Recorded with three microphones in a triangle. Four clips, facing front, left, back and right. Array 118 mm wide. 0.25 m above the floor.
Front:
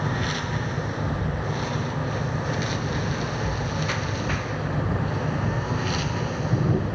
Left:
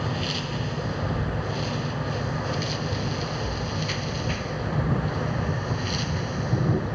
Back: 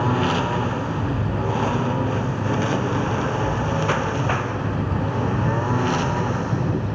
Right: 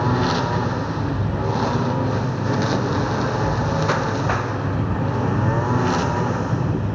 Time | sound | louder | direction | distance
0.0 | a lawn mower | right 10 dB, back 7 dB | 130° right | ?